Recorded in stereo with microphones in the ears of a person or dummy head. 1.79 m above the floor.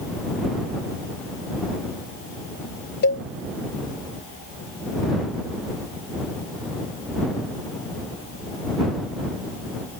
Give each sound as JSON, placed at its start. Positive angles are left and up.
{"t": 3.0, "sound": "a cowbell", "side_deg": 60}